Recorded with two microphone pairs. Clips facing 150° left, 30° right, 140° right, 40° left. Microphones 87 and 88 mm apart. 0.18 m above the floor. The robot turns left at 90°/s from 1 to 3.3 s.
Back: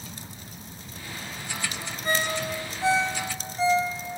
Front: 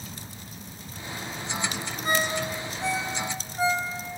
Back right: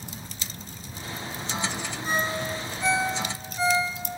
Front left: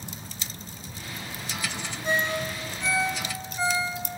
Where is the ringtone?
40° left, 6.5 m; by 3.9 s 70° right, 6.5 m.